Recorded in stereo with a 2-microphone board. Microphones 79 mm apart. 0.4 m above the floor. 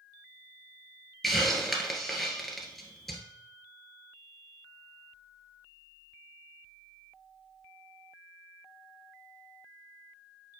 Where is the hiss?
Centre (ahead or behind), 1.6 m.